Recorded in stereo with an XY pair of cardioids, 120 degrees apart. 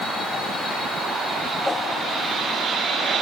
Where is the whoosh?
5° left, 3 m.